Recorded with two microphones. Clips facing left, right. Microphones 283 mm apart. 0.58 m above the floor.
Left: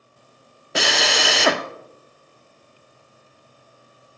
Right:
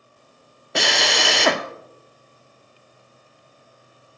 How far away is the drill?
About 0.5 m.